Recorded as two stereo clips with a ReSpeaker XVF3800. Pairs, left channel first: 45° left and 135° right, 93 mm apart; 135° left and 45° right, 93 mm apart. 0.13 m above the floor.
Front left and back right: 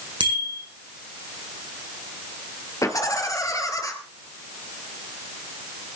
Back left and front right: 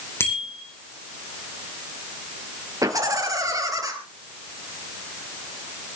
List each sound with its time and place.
0.2 s a bicycle bell: 160° right, 5.5 m
2.8 s laughter: straight ahead, 2 m